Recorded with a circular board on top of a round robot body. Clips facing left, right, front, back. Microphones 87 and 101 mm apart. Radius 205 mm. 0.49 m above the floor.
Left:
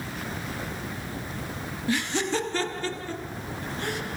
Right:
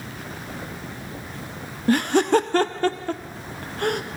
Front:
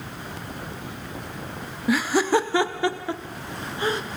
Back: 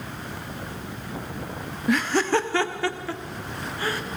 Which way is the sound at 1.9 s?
85° right.